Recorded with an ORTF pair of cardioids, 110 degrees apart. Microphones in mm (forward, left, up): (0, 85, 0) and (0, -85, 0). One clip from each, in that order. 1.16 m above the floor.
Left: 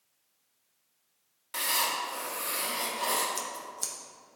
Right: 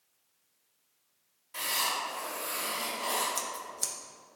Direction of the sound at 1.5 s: 65° left.